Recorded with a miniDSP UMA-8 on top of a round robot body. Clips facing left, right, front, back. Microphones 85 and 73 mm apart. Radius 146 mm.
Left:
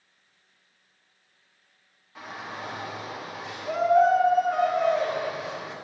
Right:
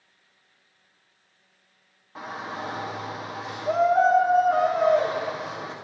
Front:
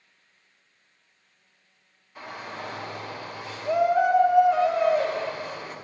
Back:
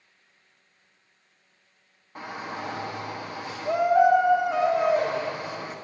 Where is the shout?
145° right, 1.6 m.